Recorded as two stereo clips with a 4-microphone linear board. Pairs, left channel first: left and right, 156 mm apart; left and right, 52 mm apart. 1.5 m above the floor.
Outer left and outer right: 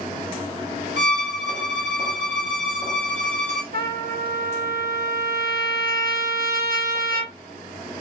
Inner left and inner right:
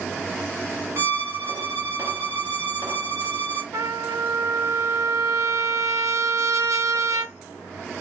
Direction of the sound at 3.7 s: 75° right (ahead or behind).